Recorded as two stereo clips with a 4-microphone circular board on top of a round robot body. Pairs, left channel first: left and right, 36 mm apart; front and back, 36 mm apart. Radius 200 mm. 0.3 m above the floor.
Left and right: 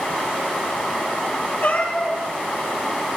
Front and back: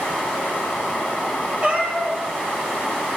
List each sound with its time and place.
1.6 s a cat meowing: 120° left, 7.5 m